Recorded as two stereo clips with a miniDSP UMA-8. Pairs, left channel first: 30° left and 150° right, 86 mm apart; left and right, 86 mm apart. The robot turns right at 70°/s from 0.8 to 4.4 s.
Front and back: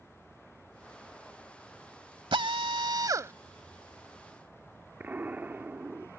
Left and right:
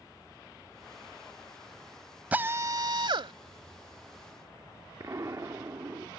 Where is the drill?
160° right; by 3.3 s 90° right.